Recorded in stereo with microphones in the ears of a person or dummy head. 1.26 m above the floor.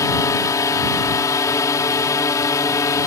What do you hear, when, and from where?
0.0 s a drone: 15° left (ahead or behind)